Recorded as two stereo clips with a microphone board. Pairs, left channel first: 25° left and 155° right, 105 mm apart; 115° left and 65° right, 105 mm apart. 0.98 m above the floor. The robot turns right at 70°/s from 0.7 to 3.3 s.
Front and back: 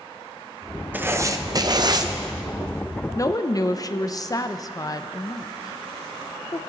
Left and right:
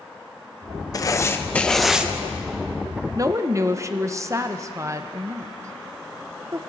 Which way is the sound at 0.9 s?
140° left.